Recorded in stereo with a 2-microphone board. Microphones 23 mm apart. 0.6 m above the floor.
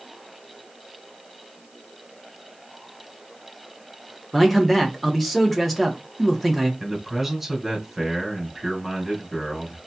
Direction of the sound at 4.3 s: Centre (ahead or behind).